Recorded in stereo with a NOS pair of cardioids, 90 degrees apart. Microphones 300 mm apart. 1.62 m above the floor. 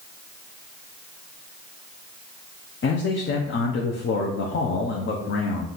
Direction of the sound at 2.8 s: 40° left.